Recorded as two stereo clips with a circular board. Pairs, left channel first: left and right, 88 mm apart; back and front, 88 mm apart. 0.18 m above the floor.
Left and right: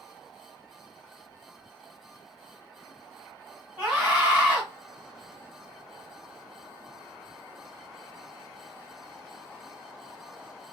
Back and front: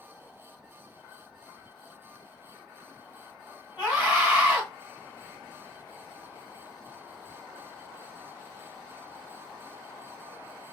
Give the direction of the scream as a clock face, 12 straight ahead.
1 o'clock.